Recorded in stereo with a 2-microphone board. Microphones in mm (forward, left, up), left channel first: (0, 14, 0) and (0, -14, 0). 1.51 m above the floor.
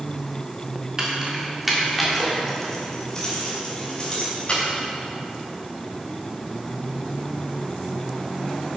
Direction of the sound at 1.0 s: 25° right (ahead or behind).